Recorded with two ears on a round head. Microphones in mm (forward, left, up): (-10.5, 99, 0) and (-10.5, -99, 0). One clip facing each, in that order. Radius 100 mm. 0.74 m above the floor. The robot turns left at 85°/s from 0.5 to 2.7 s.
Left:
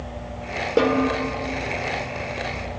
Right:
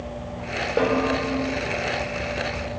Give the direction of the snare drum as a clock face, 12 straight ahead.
10 o'clock.